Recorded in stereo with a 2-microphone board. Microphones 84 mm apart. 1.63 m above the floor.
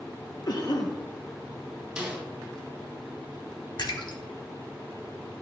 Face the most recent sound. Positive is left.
turn(degrees=60)  # may be behind; listen again after turning